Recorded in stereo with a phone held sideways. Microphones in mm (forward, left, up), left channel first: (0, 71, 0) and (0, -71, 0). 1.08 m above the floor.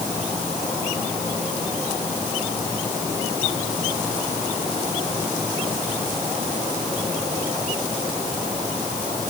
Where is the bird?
I don't hear a bird.